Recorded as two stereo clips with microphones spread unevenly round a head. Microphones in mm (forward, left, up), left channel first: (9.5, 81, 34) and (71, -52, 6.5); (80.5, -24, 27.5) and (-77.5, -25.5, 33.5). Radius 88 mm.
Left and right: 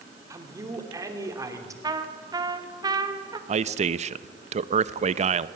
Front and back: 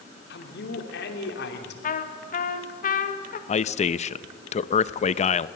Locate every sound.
0.3 s a man speaking: straight ahead, 3 m
1.8 s a trumpet: 15° right, 1.6 m
3.5 s a man speaking: 40° right, 0.6 m